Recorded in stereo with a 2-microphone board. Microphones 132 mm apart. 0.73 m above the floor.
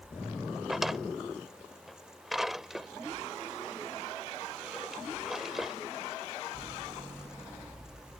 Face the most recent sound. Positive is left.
turn(degrees=-5)  # may be behind; listen again after turning